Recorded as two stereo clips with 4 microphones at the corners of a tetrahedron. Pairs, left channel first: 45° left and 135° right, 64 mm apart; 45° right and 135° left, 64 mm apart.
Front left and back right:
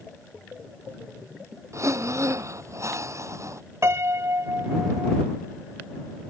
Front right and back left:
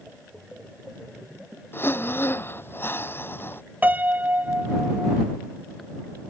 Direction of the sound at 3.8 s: 165° right.